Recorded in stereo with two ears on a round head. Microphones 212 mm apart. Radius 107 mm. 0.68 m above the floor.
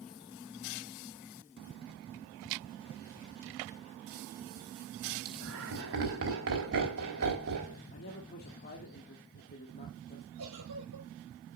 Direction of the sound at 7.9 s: 40° left (ahead or behind).